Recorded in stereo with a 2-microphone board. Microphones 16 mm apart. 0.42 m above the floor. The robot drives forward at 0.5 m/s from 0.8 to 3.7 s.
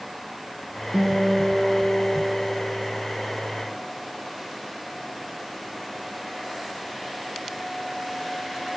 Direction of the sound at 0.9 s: 50° right (ahead or behind).